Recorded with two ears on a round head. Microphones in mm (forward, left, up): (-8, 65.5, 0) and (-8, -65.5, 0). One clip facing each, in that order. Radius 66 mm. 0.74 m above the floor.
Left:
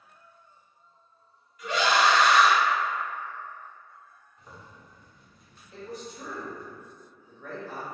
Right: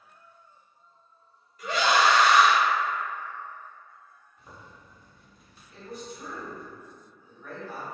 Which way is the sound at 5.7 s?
55° left (ahead or behind).